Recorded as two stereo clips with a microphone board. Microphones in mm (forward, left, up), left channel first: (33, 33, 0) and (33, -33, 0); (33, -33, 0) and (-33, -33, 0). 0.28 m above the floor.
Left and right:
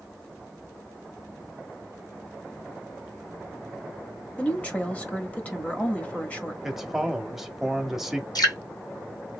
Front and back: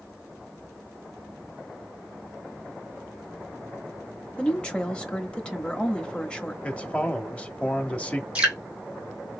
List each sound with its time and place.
4.4 s a woman speaking: 50° left, 1.1 m
6.6 s a man speaking: 15° right, 0.9 m
8.3 s dripping: 110° left, 2 m